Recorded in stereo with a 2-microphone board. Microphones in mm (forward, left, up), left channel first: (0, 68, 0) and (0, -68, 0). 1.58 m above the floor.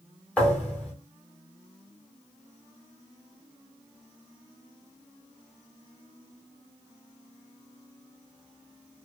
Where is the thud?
10° left (ahead or behind), 1.4 m.